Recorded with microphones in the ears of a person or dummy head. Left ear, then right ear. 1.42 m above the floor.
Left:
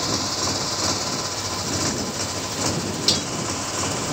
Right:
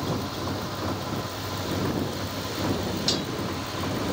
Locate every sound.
0.0 s a motorcycle: 75° left (ahead or behind); by 4.1 s 85° left
3.1 s cutlery clinking: 5° left (ahead or behind)